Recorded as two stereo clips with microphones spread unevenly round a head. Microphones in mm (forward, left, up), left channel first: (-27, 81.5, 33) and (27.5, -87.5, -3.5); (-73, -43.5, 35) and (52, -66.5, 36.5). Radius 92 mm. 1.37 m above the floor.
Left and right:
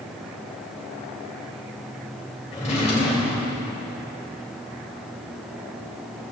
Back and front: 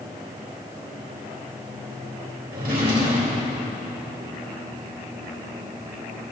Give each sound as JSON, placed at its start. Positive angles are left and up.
{"t": 2.5, "sound": "a drawer", "azimuth_deg": 55, "distance_m": 3.0}